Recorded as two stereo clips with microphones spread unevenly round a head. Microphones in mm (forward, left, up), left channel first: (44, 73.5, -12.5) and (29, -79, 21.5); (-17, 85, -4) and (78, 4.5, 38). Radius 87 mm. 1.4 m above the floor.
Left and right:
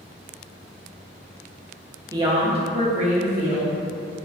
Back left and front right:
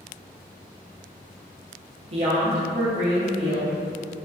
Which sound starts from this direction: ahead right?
A woman speaking, at 2.1 s.